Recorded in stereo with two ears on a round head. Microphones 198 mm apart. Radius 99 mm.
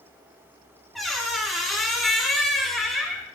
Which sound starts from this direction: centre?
A squeak, at 0.9 s.